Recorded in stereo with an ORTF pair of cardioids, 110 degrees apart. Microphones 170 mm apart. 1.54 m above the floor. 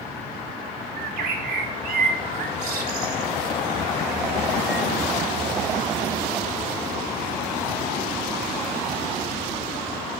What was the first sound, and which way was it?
A bird, 65° right.